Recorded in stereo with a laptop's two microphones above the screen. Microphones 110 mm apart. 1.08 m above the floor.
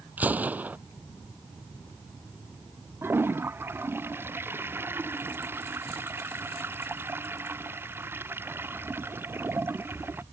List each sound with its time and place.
0.2 s a gunshot: 15° right (ahead or behind)
3.0 s a toilet flushing: 20° right (ahead or behind)